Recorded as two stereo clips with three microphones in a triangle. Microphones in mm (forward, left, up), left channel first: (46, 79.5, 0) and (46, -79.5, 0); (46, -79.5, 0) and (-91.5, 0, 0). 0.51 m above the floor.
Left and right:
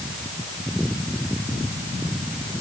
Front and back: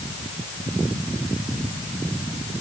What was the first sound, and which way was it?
Only background noise.